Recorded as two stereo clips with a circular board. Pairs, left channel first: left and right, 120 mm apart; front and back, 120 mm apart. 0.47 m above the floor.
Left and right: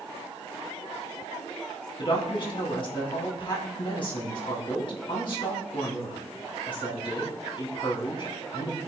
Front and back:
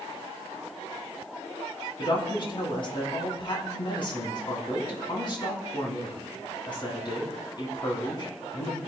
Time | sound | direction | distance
2.0 | a woman speaking | 45° left | 3.5 m